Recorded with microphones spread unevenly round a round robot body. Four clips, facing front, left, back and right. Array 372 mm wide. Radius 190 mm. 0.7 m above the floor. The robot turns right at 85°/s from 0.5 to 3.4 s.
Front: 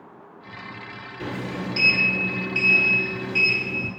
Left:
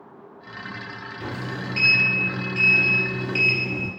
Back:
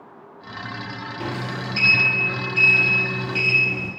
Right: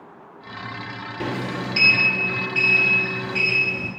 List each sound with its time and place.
1.2 s a sliding door: 110° right, 0.8 m; by 3.9 s 75° left, 0.8 m